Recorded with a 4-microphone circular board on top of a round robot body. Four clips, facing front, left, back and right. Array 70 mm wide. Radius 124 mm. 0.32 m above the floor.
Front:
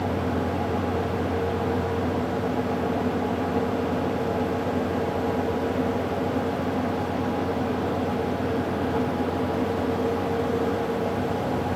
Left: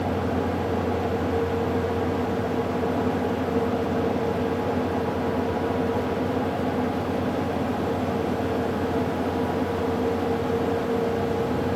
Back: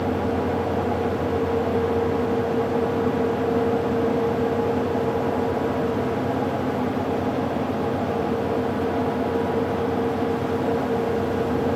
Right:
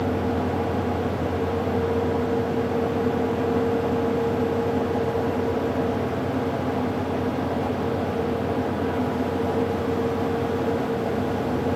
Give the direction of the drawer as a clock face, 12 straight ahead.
I don't hear a drawer.